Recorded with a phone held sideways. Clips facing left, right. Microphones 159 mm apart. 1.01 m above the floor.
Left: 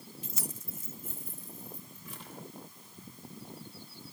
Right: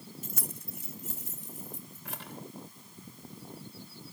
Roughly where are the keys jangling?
Right.